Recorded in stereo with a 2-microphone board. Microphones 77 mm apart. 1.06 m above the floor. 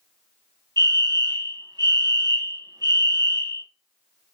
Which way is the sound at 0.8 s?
70° right (ahead or behind).